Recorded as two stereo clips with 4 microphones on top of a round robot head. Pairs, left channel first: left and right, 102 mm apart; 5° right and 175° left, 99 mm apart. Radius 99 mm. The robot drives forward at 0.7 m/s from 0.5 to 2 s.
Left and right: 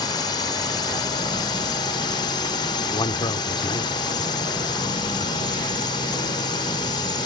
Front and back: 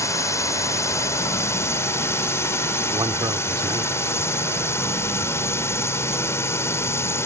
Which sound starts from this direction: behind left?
A man speaking, at 2.9 s.